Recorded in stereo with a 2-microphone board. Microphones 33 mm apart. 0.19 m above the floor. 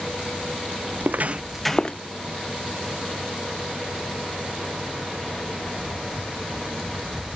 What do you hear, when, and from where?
0.9 s footsteps: 75° right (ahead or behind), 1.0 m; by 2.0 s 30° left (ahead or behind), 1.1 m